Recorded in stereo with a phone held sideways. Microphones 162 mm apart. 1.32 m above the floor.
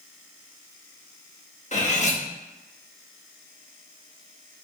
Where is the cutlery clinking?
50° left (ahead or behind), 0.9 m.